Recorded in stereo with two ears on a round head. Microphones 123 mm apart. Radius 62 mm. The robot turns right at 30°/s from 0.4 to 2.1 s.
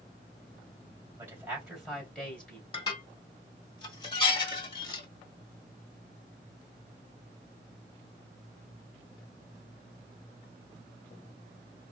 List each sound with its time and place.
1.2 s a man speaking: 20° right (ahead or behind), 3 m; by 2.6 s 10° left (ahead or behind), 3 m
2.7 s dishes clattering: 35° left (ahead or behind), 1.4 m